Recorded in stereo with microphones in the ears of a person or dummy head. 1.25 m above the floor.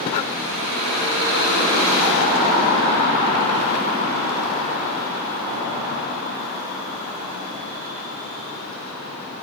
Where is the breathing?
30° left (ahead or behind), 1.3 m.